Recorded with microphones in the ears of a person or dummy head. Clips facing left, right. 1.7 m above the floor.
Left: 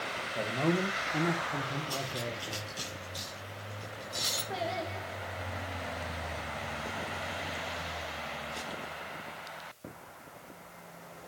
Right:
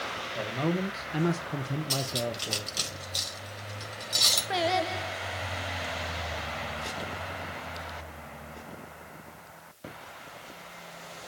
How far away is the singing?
About 1.8 m.